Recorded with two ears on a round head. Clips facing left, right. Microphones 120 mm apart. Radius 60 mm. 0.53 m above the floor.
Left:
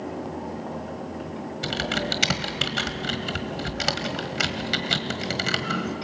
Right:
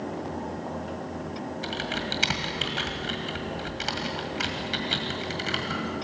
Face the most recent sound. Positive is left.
turn(degrees=65)  # may be behind; listen again after turning